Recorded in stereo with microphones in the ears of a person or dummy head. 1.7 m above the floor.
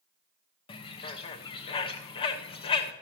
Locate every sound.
0.7 s a bird: 35° left (ahead or behind), 0.9 m